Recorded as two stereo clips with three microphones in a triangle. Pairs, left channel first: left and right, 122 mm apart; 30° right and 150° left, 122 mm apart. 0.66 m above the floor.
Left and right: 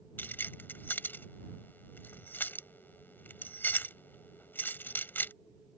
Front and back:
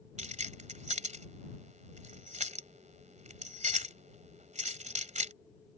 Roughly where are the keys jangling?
Behind.